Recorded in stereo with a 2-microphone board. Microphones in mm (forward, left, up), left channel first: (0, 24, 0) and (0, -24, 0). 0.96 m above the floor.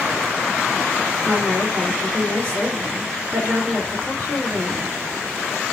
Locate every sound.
1.2 s a woman speaking: 30° right (ahead or behind), 2.5 m